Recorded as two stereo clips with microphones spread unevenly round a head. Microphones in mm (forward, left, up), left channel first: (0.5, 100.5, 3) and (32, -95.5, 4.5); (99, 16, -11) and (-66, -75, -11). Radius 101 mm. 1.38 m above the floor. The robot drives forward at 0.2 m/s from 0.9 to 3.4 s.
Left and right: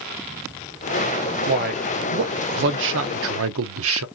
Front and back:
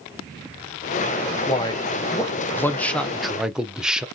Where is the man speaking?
35° right, 0.8 m; by 4.0 s 65° right, 0.5 m.